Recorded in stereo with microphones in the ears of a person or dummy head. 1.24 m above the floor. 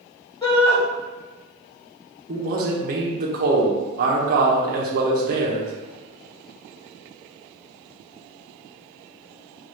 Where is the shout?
15° left (ahead or behind), 1.7 m.